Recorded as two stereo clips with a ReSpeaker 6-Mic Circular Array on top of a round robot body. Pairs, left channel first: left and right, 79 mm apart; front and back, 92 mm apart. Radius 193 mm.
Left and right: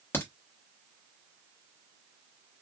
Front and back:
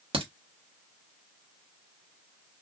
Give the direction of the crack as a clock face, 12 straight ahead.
7 o'clock.